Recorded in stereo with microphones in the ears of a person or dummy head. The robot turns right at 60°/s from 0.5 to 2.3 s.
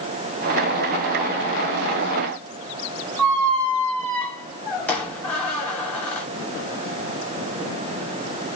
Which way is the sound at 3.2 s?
10° left (ahead or behind).